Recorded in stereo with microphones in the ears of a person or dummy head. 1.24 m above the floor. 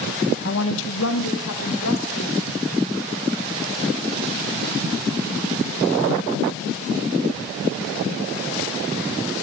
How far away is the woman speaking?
About 1.0 m.